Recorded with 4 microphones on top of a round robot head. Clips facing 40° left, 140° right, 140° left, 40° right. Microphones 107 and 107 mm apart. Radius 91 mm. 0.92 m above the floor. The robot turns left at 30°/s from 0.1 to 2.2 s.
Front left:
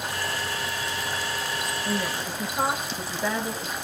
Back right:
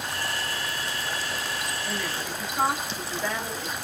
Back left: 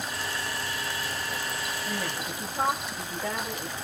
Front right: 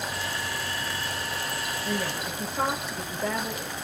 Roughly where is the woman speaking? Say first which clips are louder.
Front left 3 dB, front right 5 dB; ahead right.